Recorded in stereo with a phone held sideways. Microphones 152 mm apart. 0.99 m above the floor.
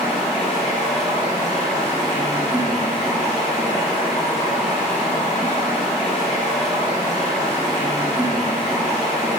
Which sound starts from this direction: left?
Running water, at 0.0 s.